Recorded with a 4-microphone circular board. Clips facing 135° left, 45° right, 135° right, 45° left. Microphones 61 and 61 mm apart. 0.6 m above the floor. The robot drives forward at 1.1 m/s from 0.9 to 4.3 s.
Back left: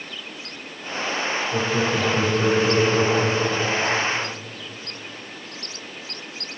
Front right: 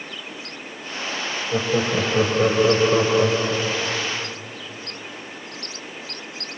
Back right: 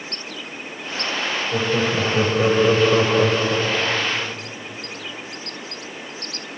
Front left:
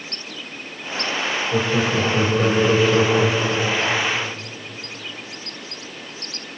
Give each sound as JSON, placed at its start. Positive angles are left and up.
{"t": 1.5, "sound": "laughter", "azimuth_deg": -50, "distance_m": 3.5}